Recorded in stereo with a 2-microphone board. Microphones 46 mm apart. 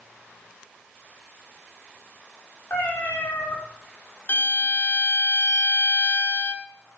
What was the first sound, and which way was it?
A cat meowing, 50° left (ahead or behind).